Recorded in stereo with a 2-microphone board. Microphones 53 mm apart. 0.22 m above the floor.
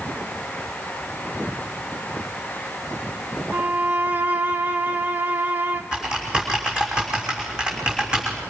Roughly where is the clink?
No clink in this recording.